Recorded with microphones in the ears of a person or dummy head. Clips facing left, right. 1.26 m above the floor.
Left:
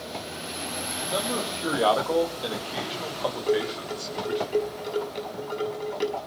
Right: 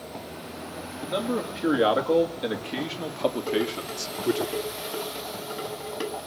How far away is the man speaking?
About 3 m.